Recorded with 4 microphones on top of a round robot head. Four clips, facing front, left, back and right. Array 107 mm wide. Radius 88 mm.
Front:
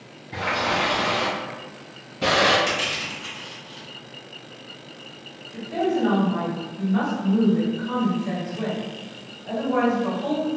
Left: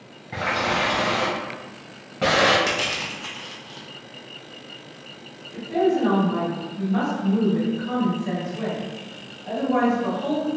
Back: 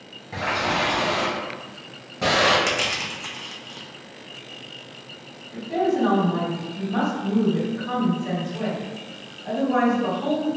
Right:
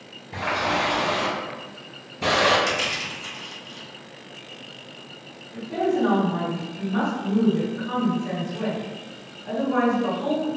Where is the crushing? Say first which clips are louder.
Even, back 1 dB; 140° left, 0.6 m.